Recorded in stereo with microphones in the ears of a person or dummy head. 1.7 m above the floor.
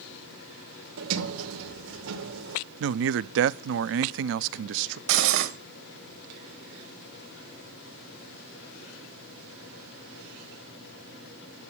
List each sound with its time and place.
1.0 s a sliding door: 80° right, 2 m
2.8 s a man speaking: 70° right (ahead or behind), 0.7 m
5.1 s cutlery clinking: 55° right (ahead or behind), 1.5 m